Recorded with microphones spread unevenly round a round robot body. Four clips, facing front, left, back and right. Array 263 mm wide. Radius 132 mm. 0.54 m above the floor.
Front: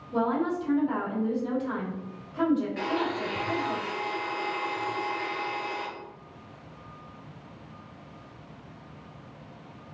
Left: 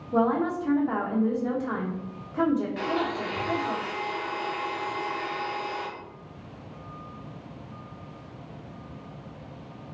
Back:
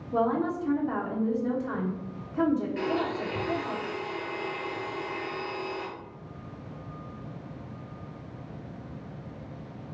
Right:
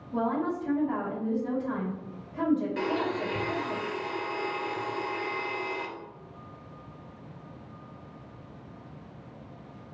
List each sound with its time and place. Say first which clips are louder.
0.1 s a woman speaking: left 5 dB, even; 115° left, 1.2 m
2.8 s a blender: left 1 dB, even; 130° right, 0.9 m